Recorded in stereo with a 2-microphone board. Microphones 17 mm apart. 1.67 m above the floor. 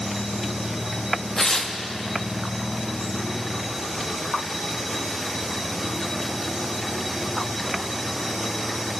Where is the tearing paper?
35° left (ahead or behind), 0.6 m.